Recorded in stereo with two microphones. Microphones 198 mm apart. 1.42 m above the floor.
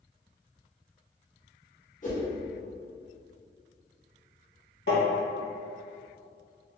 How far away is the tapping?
About 1.8 m.